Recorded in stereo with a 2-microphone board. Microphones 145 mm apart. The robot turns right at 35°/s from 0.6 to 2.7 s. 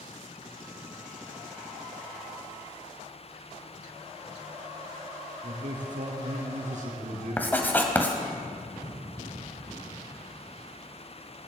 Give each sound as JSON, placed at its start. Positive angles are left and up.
{"t": 5.4, "sound": "a man speaking", "side_deg": -55, "distance_m": 3.5}
{"t": 7.4, "sound": "writing", "side_deg": 10, "distance_m": 1.6}